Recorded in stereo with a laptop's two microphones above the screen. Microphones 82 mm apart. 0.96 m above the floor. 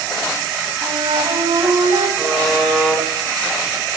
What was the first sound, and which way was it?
A flute, 80° right.